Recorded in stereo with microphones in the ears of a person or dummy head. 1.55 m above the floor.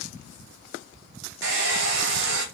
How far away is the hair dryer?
About 1.1 m.